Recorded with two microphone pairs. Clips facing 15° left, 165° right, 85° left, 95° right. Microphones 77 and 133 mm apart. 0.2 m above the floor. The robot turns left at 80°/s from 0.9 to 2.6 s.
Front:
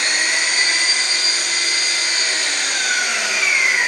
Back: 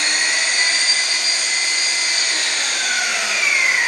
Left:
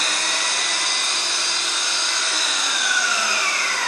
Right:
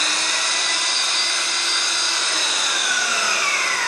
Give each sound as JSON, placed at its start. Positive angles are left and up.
{"t": 0.0, "sound": "an engine running", "azimuth_deg": 80, "distance_m": 1.3}